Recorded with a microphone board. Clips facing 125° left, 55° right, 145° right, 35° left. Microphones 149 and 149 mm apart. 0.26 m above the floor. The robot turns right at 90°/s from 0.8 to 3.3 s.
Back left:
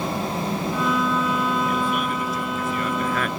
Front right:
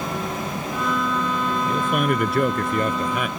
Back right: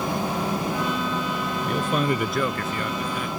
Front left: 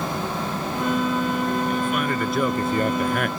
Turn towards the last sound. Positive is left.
turn(degrees=30)